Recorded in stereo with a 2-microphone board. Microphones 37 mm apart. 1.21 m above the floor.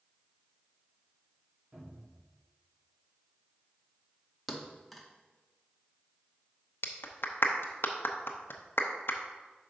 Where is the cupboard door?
55° right (ahead or behind), 3 m.